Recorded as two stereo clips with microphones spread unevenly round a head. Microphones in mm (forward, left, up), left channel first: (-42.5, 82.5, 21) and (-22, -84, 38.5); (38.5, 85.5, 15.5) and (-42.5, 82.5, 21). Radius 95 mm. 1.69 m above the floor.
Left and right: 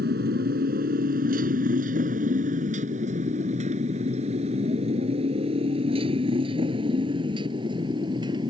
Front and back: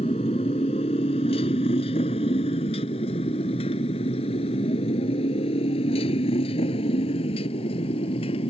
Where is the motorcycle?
40° right; by 8.5 s 15° right.